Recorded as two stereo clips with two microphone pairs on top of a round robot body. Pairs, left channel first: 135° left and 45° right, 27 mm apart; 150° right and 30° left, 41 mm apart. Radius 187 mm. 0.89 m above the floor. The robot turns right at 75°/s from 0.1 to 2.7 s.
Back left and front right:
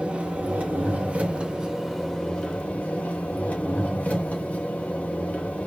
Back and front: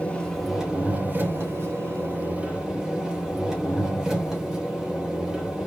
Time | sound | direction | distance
0.0 | an engine running | 90° right | 3 m